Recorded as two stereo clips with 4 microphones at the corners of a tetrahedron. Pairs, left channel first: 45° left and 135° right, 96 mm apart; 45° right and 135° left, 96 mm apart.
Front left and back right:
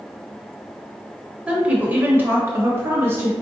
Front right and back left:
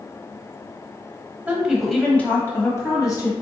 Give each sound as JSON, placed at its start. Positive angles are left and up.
{"t": 1.5, "sound": "a woman speaking", "azimuth_deg": 170, "distance_m": 1.0}